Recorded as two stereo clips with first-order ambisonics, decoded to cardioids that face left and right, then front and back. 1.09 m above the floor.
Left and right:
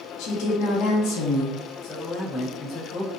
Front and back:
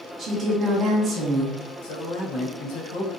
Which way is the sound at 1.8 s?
25° left.